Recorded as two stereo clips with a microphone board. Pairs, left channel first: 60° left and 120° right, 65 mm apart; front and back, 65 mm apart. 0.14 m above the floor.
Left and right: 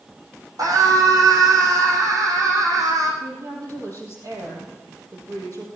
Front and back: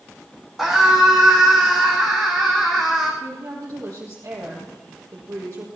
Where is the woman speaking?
150° right, 5 m.